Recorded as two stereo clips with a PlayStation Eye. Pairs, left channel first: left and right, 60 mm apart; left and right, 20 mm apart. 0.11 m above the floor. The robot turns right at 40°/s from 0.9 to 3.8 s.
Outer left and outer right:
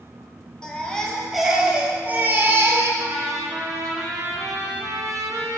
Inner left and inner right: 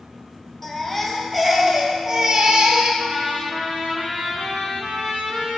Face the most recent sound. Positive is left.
turn(degrees=-70)